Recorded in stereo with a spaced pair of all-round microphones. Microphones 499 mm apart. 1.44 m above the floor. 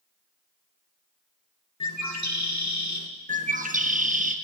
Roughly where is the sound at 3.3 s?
Centre.